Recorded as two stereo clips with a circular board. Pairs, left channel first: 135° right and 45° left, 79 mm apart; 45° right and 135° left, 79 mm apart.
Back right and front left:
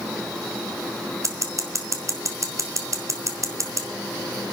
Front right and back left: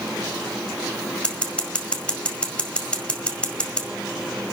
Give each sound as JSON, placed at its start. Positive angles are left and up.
{"t": 1.2, "sound": "scissors", "azimuth_deg": 25, "distance_m": 1.6}